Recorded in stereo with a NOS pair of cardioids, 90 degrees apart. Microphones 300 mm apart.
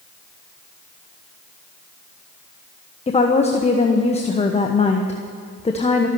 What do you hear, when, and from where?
3.1 s a woman speaking: 20° left, 1.2 m